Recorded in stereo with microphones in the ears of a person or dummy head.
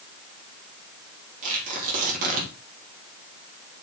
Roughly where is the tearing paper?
Right.